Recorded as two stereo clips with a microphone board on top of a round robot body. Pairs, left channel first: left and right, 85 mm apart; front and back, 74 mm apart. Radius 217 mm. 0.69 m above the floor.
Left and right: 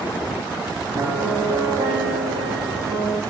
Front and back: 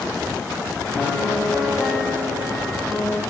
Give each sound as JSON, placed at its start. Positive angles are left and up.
{"t": 0.9, "sound": "a piano", "azimuth_deg": -80, "distance_m": 1.5}